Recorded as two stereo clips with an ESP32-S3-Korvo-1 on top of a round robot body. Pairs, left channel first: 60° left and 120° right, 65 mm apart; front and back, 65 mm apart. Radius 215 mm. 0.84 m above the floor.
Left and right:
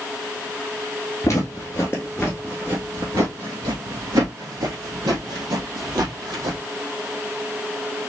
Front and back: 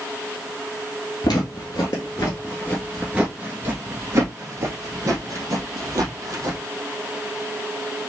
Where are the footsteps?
10° left, 1.1 m; by 6.6 s 145° right, 2 m.